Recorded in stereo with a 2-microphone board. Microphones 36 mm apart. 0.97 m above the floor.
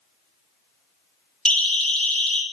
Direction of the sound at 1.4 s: 15° left (ahead or behind).